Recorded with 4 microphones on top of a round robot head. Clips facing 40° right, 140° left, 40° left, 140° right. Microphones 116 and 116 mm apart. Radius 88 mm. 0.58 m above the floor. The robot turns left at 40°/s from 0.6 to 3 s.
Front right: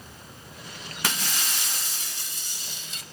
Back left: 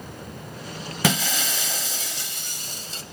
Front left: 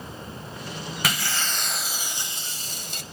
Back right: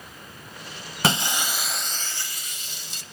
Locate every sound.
1.0 s breaking glass: 160° left, 0.6 m; by 3.0 s 80° left, 0.6 m